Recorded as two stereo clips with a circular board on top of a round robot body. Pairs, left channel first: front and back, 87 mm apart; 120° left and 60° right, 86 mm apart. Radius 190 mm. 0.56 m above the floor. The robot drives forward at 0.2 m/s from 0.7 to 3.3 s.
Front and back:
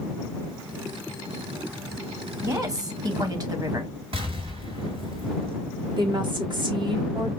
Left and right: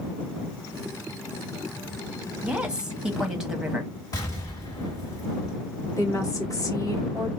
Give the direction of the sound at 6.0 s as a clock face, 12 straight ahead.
6 o'clock.